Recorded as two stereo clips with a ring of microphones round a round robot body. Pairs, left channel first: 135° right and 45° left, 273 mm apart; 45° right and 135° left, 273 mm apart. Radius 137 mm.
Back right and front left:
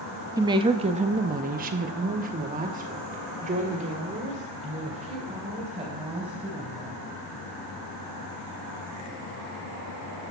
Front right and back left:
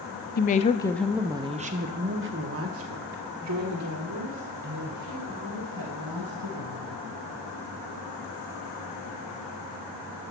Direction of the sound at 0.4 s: 25° right.